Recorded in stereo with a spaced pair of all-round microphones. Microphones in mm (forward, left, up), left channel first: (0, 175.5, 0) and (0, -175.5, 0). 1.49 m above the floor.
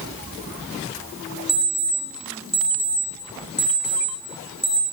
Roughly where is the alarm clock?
Centre.